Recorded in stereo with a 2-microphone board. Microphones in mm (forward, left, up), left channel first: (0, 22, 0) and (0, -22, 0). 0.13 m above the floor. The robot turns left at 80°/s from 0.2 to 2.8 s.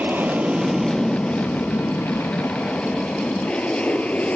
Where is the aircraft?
45° right (ahead or behind); by 4.4 s 30° left (ahead or behind).